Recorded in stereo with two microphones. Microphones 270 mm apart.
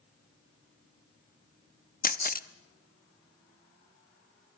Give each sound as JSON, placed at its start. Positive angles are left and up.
{"t": 2.0, "sound": "a camera shutter", "side_deg": 35, "distance_m": 0.8}